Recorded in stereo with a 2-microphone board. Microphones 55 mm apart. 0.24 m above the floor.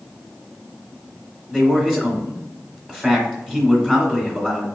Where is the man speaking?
Centre (ahead or behind), 1.3 m.